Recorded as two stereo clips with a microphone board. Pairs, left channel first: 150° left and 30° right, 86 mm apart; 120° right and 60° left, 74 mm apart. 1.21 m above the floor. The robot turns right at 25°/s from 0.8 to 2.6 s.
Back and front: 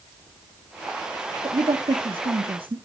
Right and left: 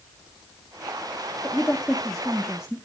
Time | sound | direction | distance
1.4 | a woman speaking | 50° right | 1.1 m